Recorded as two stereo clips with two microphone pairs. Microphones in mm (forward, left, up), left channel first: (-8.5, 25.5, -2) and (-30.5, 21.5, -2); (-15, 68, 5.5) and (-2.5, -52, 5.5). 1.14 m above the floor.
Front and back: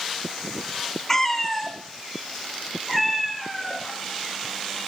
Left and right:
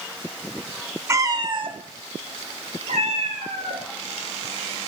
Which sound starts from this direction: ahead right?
A cat meowing, at 1.1 s.